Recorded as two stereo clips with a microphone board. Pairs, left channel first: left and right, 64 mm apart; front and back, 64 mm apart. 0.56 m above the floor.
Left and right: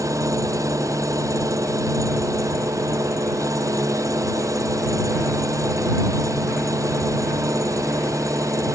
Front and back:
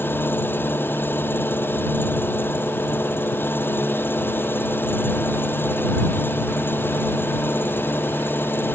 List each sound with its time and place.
0.0 s an engine running: 60° right